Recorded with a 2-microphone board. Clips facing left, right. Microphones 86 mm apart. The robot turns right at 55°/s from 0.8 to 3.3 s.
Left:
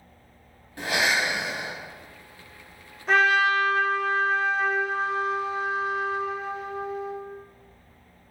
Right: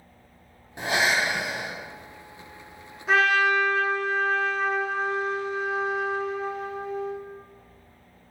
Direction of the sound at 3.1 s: 5° right (ahead or behind).